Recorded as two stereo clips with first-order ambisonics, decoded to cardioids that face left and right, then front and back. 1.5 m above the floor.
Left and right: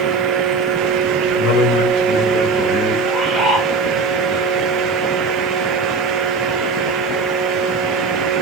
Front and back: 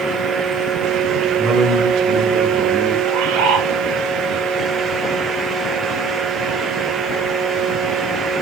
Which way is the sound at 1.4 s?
110° left.